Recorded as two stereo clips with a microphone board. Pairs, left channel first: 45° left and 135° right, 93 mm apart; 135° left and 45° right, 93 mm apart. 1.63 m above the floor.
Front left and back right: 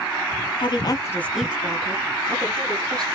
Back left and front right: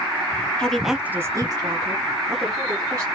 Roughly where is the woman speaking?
Ahead left.